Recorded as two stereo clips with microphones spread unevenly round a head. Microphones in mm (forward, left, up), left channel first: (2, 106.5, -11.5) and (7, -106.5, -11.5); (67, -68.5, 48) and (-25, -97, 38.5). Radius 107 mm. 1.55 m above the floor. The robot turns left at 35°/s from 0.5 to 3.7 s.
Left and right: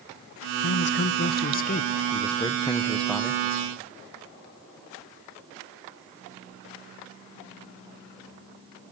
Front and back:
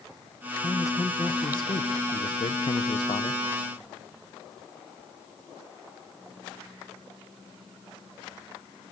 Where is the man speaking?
90° left, 0.6 m; by 3.4 s 5° right, 0.6 m.